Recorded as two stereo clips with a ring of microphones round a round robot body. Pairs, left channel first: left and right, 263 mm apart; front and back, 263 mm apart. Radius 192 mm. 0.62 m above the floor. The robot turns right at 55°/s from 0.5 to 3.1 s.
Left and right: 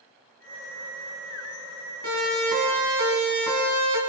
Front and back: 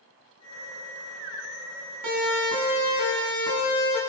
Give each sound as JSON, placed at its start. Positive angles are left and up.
{"t": 2.0, "sound": "a siren", "azimuth_deg": -155, "distance_m": 9.0}